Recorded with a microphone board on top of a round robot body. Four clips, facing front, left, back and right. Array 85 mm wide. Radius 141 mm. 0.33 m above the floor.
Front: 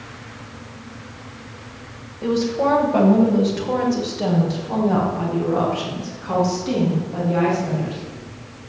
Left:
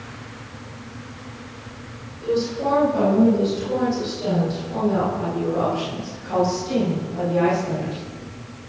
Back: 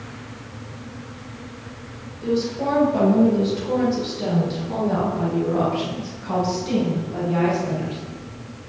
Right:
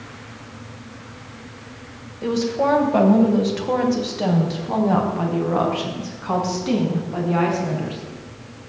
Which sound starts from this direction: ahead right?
A woman speaking, at 2.2 s.